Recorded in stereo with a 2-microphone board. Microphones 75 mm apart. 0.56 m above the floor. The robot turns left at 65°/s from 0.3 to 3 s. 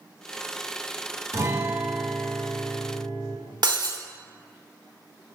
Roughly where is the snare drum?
No snare drum in this recording.